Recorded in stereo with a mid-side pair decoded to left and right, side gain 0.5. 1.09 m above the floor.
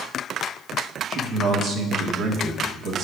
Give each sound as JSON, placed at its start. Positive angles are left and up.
{"t": 1.1, "sound": "a man speaking", "azimuth_deg": -65, "distance_m": 1.8}